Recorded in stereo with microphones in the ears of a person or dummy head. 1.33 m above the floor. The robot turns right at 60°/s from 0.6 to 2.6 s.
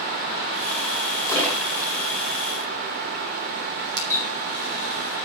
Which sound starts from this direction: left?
A splash, at 1.3 s.